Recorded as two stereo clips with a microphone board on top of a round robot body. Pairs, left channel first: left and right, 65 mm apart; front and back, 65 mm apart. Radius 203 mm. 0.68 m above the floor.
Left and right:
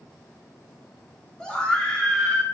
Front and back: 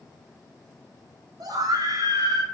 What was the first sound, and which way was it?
A scream, 170° left.